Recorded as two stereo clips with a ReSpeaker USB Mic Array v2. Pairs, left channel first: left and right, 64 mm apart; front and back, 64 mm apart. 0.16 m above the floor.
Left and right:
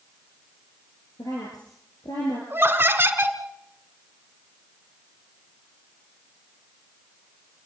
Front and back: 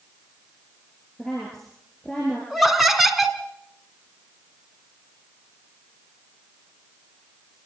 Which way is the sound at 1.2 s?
85° left.